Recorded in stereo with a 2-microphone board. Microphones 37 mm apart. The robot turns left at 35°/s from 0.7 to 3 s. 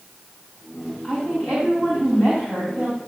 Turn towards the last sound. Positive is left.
turn(degrees=-80)